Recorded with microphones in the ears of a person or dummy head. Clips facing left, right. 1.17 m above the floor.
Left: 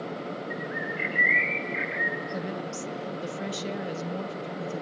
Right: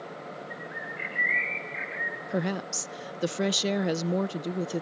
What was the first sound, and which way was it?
A bird, 60° left (ahead or behind).